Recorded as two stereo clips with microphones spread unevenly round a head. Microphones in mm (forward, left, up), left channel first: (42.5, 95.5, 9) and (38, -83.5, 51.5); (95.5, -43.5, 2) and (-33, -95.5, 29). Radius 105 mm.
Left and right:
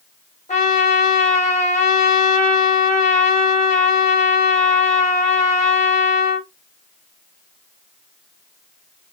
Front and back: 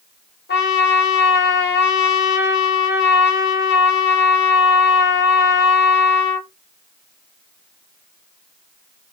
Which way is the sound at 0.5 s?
30° left.